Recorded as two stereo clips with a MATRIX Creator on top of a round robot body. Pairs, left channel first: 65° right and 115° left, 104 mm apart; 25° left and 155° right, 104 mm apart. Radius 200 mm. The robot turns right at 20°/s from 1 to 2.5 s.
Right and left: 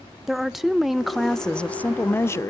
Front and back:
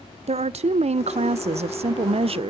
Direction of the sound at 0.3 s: 160° right.